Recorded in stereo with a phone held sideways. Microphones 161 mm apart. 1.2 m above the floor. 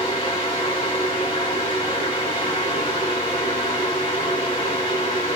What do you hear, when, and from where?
0.0 s a fan: 40° left (ahead or behind), 3 m